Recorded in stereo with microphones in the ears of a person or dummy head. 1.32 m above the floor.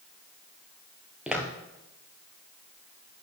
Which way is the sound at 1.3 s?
10° right (ahead or behind).